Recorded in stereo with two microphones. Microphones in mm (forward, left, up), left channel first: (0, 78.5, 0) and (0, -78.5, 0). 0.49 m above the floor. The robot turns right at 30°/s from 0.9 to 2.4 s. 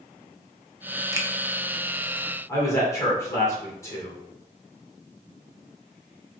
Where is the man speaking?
20° left (ahead or behind), 1.5 m.